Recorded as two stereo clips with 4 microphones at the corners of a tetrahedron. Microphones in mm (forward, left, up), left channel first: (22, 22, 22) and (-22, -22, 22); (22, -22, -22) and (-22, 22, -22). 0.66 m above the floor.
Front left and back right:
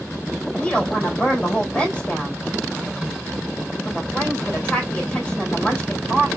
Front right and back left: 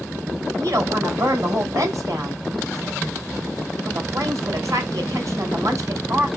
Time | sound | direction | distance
0.6 | a woman speaking | 115° left | 3 m